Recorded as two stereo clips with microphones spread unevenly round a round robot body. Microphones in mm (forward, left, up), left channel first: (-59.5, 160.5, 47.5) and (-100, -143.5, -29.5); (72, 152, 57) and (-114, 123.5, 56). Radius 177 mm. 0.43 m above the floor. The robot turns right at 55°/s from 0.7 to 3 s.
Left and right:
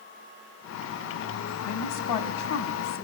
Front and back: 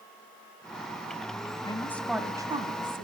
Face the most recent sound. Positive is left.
turn(degrees=150)